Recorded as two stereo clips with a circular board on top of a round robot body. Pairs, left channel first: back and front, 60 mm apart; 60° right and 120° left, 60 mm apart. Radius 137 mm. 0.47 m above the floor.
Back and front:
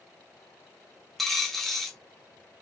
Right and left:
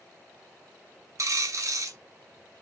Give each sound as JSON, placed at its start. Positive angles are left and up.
{"t": 1.2, "sound": "a dropped coin", "azimuth_deg": 95, "distance_m": 0.9}